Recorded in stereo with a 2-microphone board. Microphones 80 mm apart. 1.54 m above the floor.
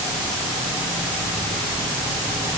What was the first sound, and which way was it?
Only background noise.